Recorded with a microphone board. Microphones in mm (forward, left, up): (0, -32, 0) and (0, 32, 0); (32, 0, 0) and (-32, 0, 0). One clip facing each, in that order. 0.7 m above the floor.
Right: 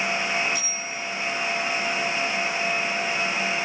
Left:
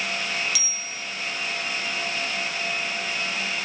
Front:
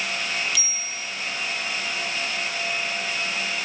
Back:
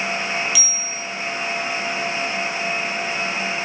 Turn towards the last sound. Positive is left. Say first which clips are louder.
# right 3 dB, back 3 dB
turn(degrees=95)